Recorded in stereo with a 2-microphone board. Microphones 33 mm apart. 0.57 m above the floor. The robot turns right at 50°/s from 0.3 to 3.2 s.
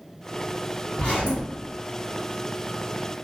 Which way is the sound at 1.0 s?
35° left (ahead or behind).